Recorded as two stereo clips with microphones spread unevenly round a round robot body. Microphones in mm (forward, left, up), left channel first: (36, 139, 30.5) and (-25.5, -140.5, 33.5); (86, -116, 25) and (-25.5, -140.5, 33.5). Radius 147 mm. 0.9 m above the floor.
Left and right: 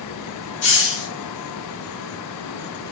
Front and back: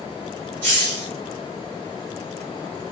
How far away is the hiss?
About 1.6 m.